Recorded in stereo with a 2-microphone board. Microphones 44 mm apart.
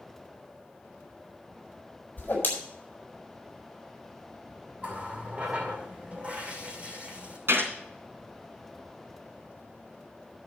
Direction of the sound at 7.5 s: 75° right (ahead or behind).